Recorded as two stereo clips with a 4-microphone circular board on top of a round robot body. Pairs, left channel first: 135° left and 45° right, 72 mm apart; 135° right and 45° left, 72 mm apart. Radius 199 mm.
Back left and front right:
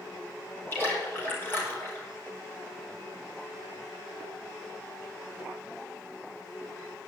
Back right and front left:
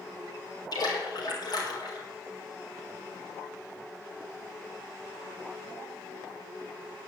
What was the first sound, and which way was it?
A splash, 165° right.